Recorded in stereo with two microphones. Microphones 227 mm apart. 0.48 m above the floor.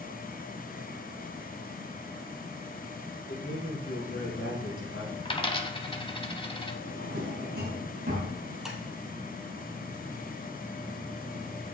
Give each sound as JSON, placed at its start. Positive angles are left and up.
{"t": 3.3, "sound": "a man speaking", "side_deg": 60, "distance_m": 5.5}
{"t": 5.2, "sound": "a dropped coin", "side_deg": 25, "distance_m": 1.1}
{"t": 6.8, "sound": "a drawer", "side_deg": -50, "distance_m": 4.5}
{"t": 8.7, "sound": "tapping", "side_deg": -5, "distance_m": 2.5}